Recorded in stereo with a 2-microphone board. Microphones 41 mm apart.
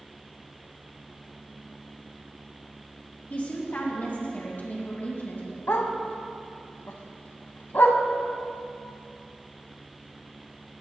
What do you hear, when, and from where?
3.3 s a woman speaking: 45° left (ahead or behind), 2 m; by 5.6 s 50° left (ahead or behind), 4 m
5.7 s a dog barking: 65° left (ahead or behind), 0.9 m